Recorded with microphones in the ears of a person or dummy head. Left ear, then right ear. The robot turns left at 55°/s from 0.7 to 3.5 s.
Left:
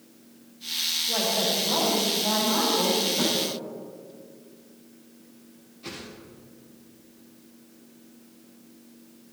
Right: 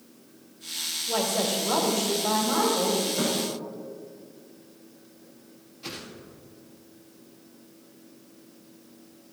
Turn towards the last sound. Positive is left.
turn(degrees=-25)  # may be behind; listen again after turning